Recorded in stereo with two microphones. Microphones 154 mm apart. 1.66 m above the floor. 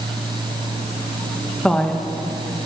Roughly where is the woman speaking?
Centre.